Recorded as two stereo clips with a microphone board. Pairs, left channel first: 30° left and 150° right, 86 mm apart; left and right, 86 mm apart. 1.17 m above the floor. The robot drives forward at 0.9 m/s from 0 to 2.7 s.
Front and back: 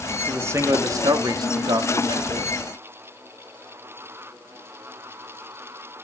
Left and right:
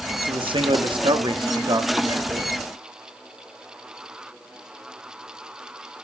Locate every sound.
0.1 s a man speaking: 80° right, 2 m; by 2.6 s 130° right, 3 m